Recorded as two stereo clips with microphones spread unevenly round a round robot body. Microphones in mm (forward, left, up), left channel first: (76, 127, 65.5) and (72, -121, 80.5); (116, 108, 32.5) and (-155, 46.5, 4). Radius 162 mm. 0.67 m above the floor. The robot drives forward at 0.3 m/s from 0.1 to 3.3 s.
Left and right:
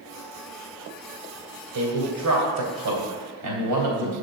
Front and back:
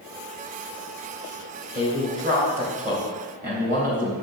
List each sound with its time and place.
1.7 s a man speaking: 90° right, 2.5 m; by 4.1 s 100° right, 3 m